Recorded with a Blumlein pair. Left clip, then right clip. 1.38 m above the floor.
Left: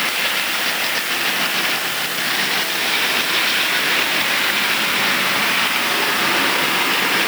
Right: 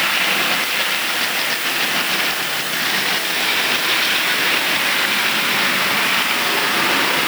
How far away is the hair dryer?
No hair dryer in this recording.